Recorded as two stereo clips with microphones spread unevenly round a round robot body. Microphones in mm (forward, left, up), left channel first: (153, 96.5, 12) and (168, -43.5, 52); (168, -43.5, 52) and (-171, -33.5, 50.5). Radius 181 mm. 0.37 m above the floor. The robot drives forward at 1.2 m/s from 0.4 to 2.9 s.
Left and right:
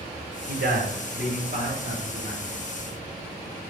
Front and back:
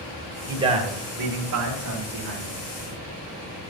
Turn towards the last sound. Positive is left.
turn(degrees=-155)